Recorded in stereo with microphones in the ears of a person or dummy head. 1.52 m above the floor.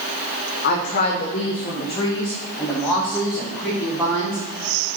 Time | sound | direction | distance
0.6 | a woman speaking | 60° left (ahead or behind) | 1.2 m